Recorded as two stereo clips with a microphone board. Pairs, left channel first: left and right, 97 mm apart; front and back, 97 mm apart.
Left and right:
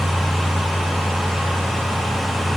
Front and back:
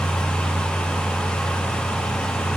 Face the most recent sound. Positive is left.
No sound to turn to.